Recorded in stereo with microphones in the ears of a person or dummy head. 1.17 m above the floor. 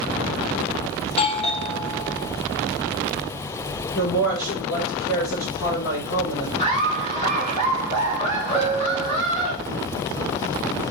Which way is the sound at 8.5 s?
35° left (ahead or behind).